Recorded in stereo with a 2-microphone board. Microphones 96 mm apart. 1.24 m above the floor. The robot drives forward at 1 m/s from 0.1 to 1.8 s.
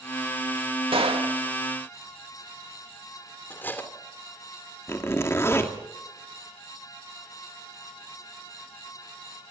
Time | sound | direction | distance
0.9 | a gunshot | 75° right (ahead or behind) | 2.5 m
3.5 | cutlery clinking | 20° left (ahead or behind) | 2.5 m
4.9 | a zipper | 30° left (ahead or behind) | 2.5 m